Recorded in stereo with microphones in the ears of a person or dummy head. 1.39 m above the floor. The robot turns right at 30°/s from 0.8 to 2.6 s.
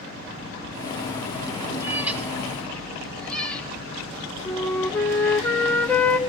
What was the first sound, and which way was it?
A cat meowing, 15° right (ahead or behind).